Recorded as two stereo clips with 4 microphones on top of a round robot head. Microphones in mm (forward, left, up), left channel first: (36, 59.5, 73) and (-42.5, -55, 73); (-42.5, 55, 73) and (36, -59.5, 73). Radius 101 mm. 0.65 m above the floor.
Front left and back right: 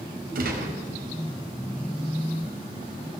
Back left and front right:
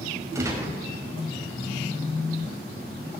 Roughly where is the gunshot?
Behind right.